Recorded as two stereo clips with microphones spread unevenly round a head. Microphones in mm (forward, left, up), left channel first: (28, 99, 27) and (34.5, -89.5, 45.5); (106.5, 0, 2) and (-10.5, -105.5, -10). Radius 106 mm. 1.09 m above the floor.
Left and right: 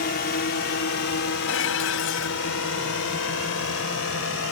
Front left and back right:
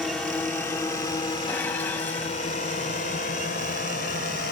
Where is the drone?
130° left; by 4.5 s 90° left.